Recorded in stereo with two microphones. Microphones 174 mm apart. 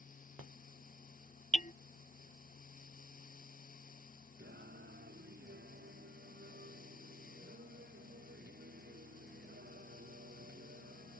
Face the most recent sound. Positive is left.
turn(degrees=-80)